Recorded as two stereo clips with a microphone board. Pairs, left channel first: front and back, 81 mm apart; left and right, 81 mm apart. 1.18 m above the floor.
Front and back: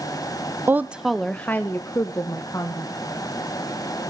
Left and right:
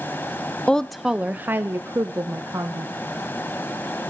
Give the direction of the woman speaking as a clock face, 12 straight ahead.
7 o'clock.